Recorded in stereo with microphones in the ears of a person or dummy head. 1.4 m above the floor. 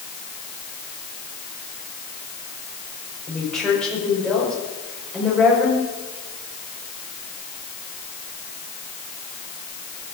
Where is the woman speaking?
10° left (ahead or behind), 5.5 m.